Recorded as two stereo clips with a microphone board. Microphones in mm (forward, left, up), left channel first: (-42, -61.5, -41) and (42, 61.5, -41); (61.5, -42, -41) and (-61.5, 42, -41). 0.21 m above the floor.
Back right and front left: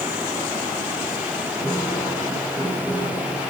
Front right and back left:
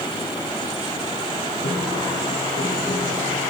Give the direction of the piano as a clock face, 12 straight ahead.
2 o'clock.